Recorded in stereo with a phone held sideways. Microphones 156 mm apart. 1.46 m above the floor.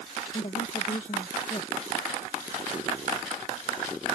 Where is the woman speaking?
45° left (ahead or behind).